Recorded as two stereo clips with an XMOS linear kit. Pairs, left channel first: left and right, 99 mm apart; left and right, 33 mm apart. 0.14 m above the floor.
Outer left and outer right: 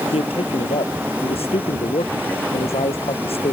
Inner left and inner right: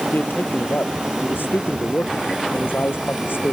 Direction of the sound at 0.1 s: 80° left.